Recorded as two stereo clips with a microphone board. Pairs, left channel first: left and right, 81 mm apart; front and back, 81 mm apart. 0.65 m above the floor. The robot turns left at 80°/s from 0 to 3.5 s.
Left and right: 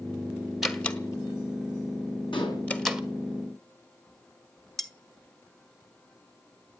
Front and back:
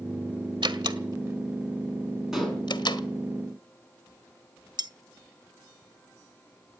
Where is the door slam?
Straight behind, 1.3 m; by 3.0 s 10° right, 1.3 m.